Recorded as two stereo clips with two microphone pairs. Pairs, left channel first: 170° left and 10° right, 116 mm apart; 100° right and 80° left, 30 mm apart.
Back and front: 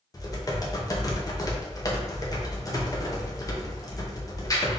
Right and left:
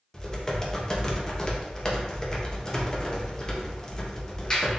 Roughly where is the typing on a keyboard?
Behind right.